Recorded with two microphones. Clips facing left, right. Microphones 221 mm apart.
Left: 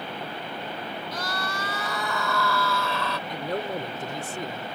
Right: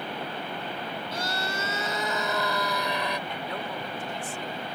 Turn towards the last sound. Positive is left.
turn(degrees=45)  # may be behind; listen again after turning